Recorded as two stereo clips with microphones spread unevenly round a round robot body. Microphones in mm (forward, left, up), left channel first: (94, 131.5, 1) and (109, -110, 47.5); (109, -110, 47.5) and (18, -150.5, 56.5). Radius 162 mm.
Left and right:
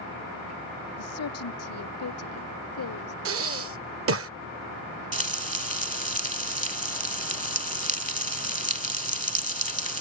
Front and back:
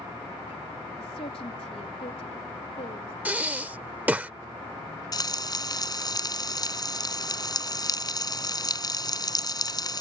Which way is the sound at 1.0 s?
80° left.